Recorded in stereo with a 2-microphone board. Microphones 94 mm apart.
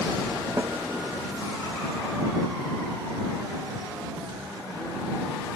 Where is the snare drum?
25° right (ahead or behind).